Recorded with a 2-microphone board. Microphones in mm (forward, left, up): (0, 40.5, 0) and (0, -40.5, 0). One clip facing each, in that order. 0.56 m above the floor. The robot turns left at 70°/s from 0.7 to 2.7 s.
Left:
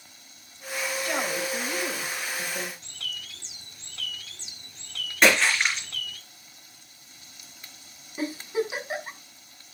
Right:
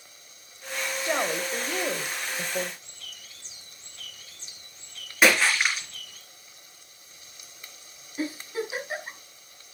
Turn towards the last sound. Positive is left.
turn(degrees=20)  # may be behind; listen again after turning